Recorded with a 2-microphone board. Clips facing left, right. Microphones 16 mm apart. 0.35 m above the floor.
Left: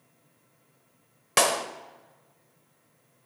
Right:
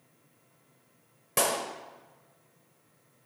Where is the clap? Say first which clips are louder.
Left 5 dB; 40° left (ahead or behind), 0.8 m.